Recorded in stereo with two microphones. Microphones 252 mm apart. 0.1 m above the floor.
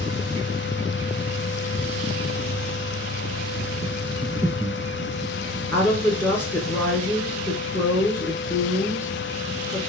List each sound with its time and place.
4.2 s breathing: 15° right (ahead or behind), 0.6 m
5.7 s a woman speaking: 10° left (ahead or behind), 1.3 m